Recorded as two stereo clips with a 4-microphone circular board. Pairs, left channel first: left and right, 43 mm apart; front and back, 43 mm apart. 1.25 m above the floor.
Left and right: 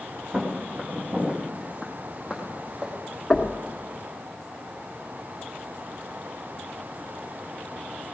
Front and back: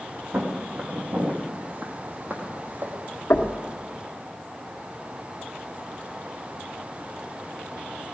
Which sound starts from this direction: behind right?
Footsteps, at 0.3 s.